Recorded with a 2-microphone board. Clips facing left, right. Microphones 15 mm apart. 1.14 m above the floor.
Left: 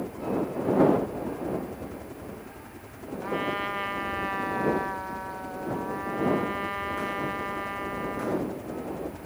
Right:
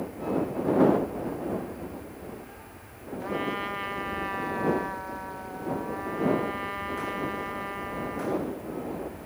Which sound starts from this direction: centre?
A trumpet, at 3.2 s.